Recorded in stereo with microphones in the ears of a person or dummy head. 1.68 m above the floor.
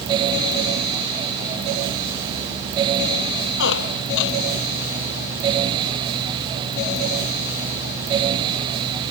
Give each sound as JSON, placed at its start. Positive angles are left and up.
{"t": 3.6, "sound": "a squeak", "side_deg": 65}